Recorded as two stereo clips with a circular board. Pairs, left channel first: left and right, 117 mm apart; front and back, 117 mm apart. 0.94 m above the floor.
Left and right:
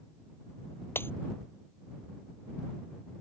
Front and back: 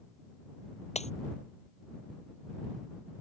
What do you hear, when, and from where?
0.9 s breaking glass: 20° left